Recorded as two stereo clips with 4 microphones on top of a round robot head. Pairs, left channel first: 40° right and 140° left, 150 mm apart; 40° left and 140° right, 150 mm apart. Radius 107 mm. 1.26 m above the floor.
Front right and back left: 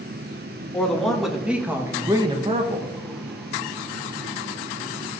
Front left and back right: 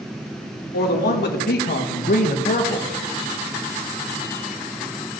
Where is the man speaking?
40° left, 2 m; by 2.9 s 100° left, 1.2 m.